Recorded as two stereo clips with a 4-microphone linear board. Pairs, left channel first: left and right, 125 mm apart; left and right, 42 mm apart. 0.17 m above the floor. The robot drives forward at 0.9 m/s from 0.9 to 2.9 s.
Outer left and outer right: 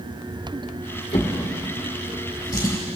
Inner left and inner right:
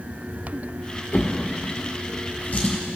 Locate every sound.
1.1 s a drawer: 50° left (ahead or behind), 2.5 m; by 2.8 s 35° left (ahead or behind), 3.5 m